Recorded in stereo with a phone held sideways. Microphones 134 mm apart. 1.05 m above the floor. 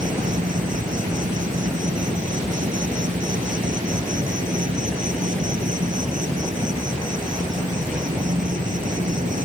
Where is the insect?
75° right (ahead or behind).